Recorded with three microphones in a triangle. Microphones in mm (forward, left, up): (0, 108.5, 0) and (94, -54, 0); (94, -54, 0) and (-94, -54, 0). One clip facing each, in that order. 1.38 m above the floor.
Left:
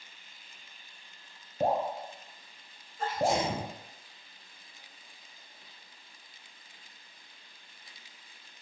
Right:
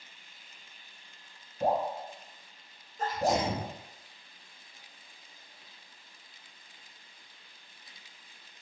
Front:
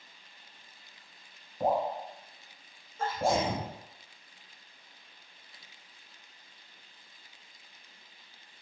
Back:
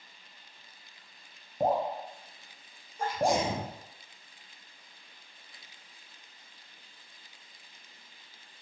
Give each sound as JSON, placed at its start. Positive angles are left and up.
{"t": 1.6, "sound": "dripping", "azimuth_deg": 135, "distance_m": 0.8}
{"t": 3.0, "sound": "a sneeze", "azimuth_deg": -105, "distance_m": 0.9}